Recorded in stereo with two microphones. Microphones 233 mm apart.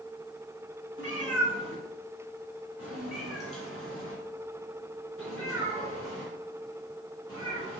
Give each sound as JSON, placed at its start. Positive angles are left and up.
{"t": 1.0, "sound": "a cat meowing", "side_deg": 75, "distance_m": 1.3}